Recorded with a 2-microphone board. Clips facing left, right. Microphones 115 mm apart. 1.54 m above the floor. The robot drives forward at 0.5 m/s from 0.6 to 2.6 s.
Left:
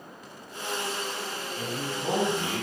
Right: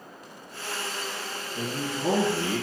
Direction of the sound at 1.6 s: 50° right (ahead or behind).